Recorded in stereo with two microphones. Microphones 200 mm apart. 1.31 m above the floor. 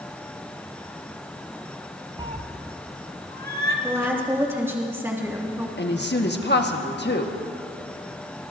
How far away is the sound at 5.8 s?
About 1.3 m.